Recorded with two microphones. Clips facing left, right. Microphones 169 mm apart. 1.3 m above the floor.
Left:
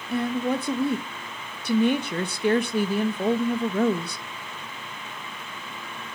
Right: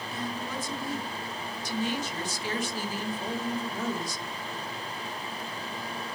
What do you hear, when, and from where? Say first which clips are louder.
0.1 s a woman speaking: left 12 dB; 55° left (ahead or behind), 1.3 m